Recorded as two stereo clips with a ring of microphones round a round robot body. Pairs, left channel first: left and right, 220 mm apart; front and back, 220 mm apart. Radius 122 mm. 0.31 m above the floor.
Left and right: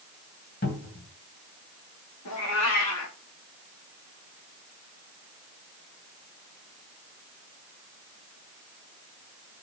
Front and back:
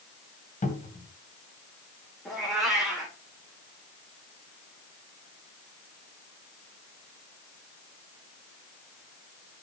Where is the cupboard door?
50° left, 2.0 m.